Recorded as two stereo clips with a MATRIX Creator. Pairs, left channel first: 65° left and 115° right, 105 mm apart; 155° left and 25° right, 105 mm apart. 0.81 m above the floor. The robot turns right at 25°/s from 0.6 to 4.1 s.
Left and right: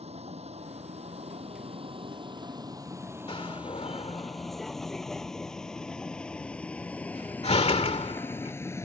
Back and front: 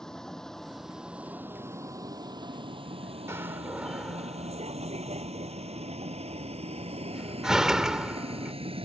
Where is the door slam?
40° left; by 8.5 s 60° left.